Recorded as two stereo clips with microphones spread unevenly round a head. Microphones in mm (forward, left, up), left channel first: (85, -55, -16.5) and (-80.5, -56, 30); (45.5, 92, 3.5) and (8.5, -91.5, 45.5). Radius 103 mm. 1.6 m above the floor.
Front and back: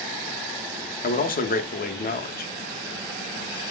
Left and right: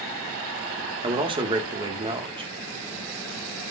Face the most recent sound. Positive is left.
turn(degrees=-40)